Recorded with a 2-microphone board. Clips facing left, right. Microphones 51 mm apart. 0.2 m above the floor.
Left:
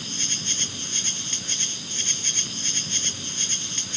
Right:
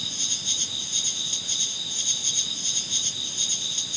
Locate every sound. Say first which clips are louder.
0.0 s an insect: left 2 dB; 50° left (ahead or behind)